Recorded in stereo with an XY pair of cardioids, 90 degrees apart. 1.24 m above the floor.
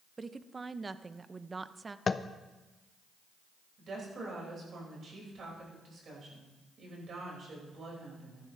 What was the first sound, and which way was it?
A woman speaking, 30° right.